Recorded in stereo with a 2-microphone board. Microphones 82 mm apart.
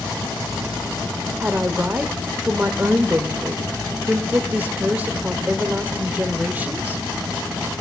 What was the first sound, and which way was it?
A woman speaking, 20° right (ahead or behind).